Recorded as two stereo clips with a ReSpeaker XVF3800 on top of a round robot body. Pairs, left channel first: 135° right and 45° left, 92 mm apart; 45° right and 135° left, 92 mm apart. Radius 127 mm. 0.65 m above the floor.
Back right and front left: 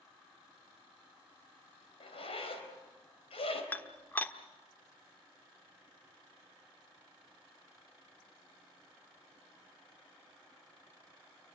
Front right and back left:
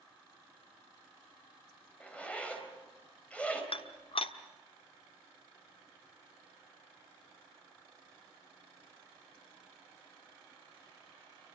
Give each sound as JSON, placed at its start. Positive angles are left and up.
{"t": 2.0, "sound": "a zipper", "azimuth_deg": -120, "distance_m": 4.5}
{"t": 3.7, "sound": "dishes clattering", "azimuth_deg": -65, "distance_m": 1.3}